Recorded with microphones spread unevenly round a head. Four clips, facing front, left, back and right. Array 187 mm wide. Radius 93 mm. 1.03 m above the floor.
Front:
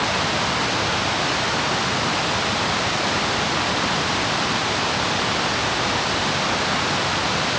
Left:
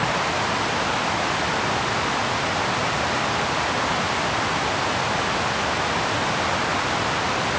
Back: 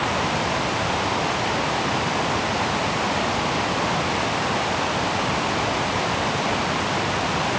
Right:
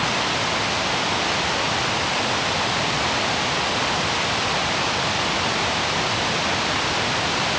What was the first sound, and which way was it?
Only background noise.